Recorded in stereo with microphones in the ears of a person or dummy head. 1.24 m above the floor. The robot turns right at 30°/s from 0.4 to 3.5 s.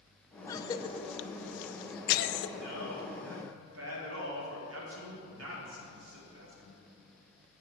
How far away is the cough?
About 0.7 m.